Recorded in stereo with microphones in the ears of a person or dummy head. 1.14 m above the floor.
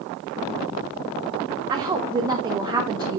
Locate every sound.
1.7 s a woman speaking: 20° right (ahead or behind), 0.9 m